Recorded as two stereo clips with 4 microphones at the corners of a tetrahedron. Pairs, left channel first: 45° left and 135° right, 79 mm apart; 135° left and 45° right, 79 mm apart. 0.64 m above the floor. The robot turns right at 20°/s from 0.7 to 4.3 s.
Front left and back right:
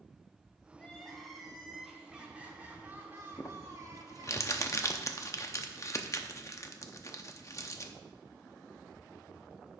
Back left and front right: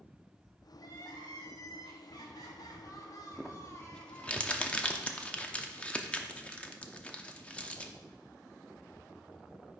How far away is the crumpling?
About 0.7 m.